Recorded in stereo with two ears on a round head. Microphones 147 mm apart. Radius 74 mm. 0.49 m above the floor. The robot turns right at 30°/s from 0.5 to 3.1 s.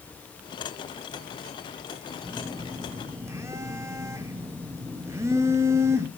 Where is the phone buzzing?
Centre (ahead or behind), 0.6 m; by 6.1 s 15° right (ahead or behind), 0.6 m.